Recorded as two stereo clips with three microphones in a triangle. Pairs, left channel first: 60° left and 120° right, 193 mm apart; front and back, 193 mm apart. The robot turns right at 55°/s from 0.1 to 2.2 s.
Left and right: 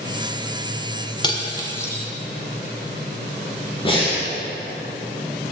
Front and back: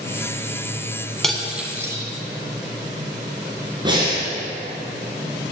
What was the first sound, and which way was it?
Cutlery clinking, 85° left.